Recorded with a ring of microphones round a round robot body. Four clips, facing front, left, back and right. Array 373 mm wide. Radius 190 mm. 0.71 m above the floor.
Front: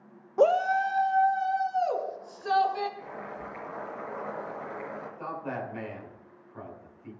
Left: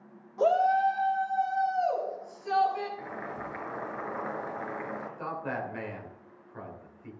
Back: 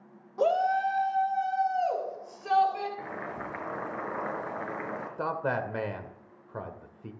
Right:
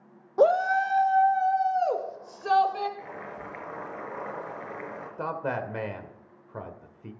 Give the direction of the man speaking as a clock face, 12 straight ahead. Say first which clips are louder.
Right 6 dB, back 6 dB; 5 o'clock.